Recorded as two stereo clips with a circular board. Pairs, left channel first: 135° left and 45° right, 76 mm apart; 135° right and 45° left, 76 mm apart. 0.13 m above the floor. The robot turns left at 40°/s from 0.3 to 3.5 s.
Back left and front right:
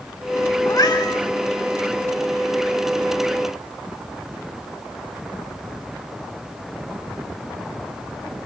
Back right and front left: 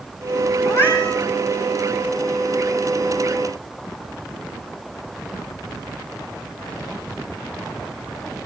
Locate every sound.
0.7 s a cat meowing: straight behind, 5 m; by 1.2 s 160° left, 5 m